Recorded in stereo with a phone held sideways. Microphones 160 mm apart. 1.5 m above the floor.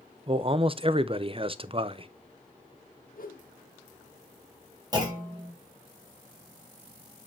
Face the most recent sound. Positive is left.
turn(degrees=-25)  # may be behind; listen again after turning